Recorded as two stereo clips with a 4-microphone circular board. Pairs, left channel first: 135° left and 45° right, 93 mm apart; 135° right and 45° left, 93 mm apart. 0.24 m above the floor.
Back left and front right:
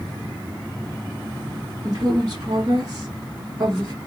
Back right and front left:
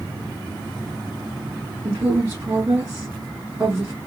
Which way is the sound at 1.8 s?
10° right.